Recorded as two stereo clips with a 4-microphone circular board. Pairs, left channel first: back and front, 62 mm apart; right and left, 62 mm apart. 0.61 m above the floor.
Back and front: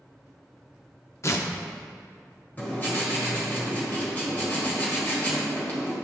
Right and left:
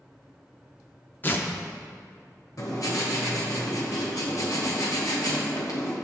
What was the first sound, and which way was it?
Tearing paper, 145° right.